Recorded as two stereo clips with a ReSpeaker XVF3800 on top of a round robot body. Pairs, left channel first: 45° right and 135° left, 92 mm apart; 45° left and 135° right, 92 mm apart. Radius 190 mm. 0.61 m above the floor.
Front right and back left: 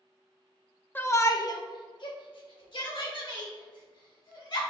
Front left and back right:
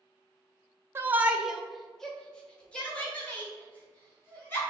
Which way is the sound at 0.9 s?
95° right.